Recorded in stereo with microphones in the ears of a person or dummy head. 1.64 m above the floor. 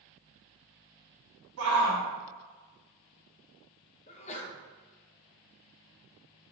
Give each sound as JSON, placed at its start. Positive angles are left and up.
{"t": 1.6, "sound": "a shout", "side_deg": -80, "distance_m": 1.7}
{"t": 4.1, "sound": "a sneeze", "side_deg": 30, "distance_m": 0.8}